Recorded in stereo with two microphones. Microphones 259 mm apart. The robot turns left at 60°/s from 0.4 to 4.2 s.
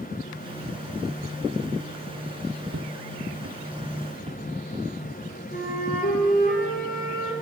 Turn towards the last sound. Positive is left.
turn(degrees=35)  # may be behind; listen again after turning